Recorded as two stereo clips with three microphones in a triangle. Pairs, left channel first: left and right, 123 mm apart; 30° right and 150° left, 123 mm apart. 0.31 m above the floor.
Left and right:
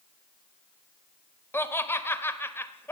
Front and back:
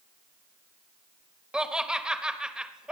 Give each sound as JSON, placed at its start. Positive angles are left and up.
{"t": 1.5, "sound": "laughter", "azimuth_deg": 85, "distance_m": 1.1}